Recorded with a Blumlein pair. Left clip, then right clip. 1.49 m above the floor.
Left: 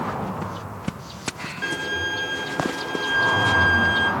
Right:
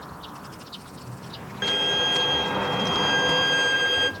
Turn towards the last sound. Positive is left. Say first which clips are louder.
# right 4 dB
turn(degrees=-70)